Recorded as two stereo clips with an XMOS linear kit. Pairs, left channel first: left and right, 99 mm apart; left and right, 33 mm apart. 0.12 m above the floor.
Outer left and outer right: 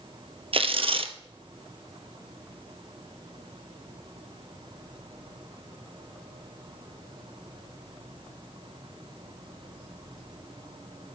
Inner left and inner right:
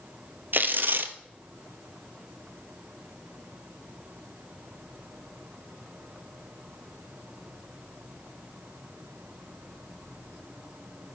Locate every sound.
0.5 s tearing paper: 70° right (ahead or behind), 0.9 m